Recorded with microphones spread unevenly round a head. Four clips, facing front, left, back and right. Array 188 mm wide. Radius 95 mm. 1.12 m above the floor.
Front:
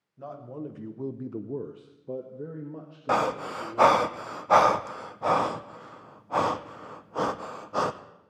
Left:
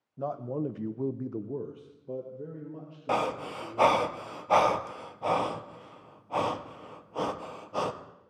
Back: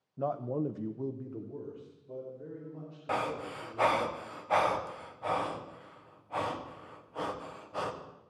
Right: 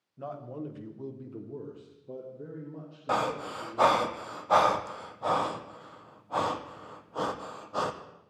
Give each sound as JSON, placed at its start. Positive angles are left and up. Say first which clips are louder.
{"t": 0.2, "sound": "a man speaking", "louder": "left 6 dB, back 6 dB", "azimuth_deg": 150, "distance_m": 1.2}
{"t": 3.1, "sound": "breathing", "louder": "even, front 8 dB", "azimuth_deg": 10, "distance_m": 0.7}